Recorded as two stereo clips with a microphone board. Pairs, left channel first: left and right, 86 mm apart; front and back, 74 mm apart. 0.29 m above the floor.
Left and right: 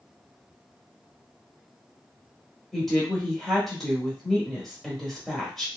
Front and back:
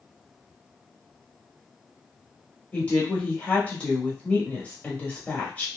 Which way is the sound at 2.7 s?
10° left.